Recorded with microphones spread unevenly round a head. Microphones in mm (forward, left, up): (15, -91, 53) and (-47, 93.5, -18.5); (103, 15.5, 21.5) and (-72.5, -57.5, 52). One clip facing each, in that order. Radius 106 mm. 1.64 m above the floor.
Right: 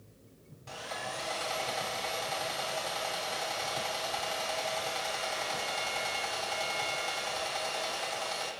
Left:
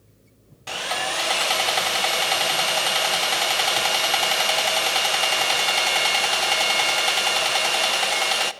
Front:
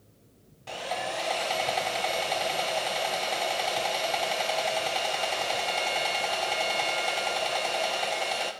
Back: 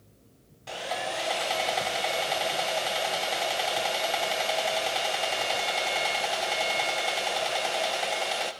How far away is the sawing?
About 0.9 m.